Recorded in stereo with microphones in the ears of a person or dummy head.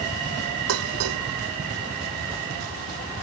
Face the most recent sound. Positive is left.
turn(degrees=-80)